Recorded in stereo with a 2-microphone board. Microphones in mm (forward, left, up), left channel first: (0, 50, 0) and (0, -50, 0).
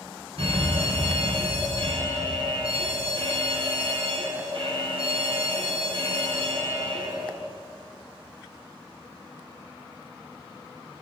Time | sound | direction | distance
0.4 | a fire alarm | 65° right (ahead or behind) | 5 m